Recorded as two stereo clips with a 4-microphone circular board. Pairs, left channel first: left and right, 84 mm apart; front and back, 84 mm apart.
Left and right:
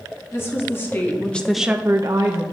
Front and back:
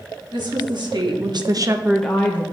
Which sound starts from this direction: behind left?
A woman speaking, at 0.3 s.